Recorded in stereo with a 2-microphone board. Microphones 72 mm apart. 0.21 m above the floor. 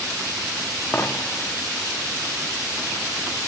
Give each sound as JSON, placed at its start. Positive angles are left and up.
{"t": 0.9, "sound": "a dropped coin", "side_deg": 25, "distance_m": 3.0}